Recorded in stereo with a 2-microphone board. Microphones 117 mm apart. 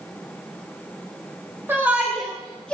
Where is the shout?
20° right (ahead or behind), 1.4 m; by 2.7 s 10° left (ahead or behind), 1.9 m.